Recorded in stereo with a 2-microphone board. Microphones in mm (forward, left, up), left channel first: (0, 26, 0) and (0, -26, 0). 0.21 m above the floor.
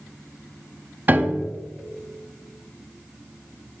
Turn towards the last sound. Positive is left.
turn(degrees=-40)  # may be behind; listen again after turning